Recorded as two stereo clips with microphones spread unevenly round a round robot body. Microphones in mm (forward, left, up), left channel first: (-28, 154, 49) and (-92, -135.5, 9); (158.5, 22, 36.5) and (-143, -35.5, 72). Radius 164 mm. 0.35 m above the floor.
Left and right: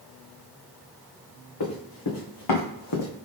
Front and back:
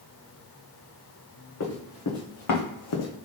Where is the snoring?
No snoring in this recording.